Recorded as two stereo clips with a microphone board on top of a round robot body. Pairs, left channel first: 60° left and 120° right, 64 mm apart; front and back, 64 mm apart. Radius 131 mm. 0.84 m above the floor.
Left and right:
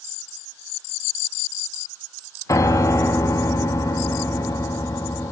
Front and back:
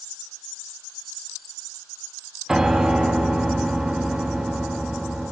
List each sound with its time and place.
2.5 s a piano: 95° left, 0.9 m